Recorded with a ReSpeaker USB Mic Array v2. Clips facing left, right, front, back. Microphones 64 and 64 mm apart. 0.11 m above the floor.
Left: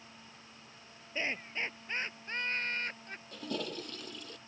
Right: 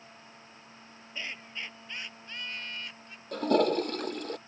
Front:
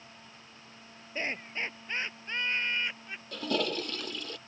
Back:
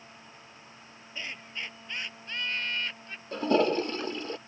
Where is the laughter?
40° left; by 3.2 s 75° left.